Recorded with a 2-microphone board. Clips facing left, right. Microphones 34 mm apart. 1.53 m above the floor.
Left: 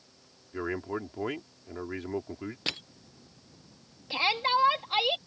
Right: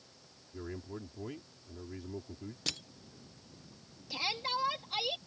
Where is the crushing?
35° left (ahead or behind).